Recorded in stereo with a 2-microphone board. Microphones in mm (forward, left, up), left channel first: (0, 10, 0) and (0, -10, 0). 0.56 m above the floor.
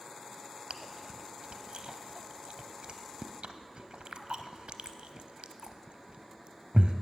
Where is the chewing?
60° right (ahead or behind), 0.7 m.